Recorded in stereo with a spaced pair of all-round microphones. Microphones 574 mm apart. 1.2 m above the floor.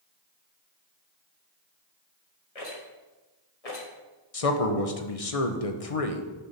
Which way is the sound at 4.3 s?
75° left (ahead or behind).